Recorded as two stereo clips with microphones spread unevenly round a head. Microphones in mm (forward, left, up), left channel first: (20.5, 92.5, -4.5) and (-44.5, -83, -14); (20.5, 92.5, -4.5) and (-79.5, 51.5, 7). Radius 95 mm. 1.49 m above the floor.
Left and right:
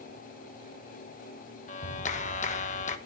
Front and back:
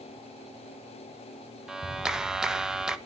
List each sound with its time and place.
1.7 s a clap: 120° left, 1.1 m